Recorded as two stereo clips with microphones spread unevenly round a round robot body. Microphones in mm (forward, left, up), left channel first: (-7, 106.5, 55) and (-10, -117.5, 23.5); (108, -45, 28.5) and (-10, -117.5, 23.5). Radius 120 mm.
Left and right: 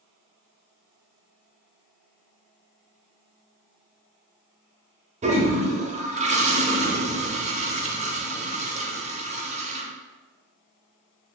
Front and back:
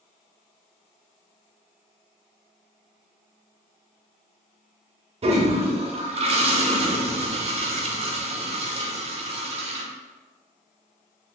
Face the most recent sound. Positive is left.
turn(degrees=-130)